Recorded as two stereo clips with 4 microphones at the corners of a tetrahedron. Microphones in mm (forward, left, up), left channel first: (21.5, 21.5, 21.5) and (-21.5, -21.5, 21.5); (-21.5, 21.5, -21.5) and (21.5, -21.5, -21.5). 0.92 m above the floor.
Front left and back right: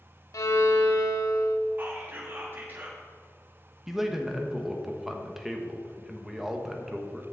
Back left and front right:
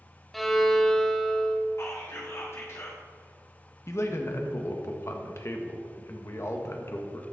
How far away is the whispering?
About 2.5 m.